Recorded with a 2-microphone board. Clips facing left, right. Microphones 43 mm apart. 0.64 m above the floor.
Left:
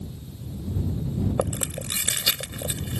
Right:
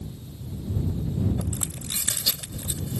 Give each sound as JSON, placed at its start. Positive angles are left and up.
{"t": 1.4, "sound": "chewing", "side_deg": 65}